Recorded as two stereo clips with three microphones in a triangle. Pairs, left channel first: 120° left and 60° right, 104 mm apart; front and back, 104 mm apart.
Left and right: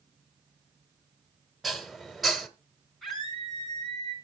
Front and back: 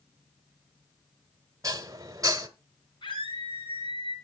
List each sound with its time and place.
1.6 s dishes clattering: 150° right, 1.0 m
3.0 s a scream: 30° left, 4 m